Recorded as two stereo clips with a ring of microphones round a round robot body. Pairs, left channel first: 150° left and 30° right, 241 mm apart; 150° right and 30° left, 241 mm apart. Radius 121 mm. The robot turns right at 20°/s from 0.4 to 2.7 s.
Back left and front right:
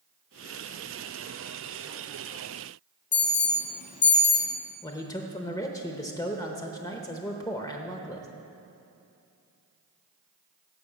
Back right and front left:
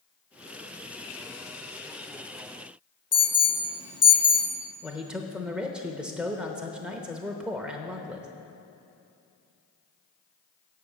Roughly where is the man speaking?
Left.